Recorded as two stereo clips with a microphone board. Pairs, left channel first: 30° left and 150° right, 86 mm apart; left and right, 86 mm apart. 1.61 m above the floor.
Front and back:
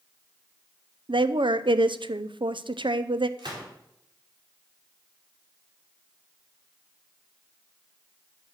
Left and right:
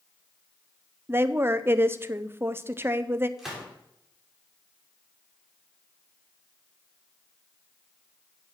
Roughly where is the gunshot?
Behind.